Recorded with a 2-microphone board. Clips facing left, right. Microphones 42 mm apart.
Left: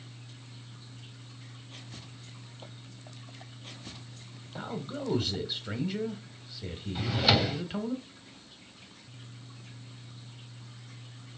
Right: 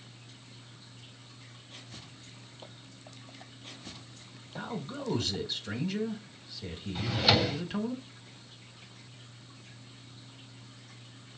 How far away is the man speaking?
About 1.3 m.